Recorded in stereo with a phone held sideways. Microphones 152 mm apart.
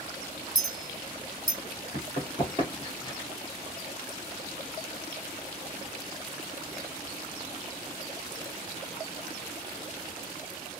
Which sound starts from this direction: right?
A clink, at 0.6 s.